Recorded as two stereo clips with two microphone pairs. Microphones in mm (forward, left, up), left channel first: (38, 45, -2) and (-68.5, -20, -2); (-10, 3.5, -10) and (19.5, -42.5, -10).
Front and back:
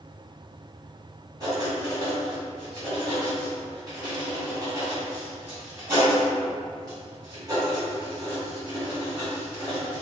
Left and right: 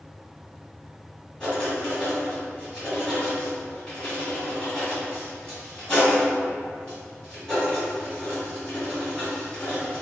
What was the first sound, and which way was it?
Writing, 170° right.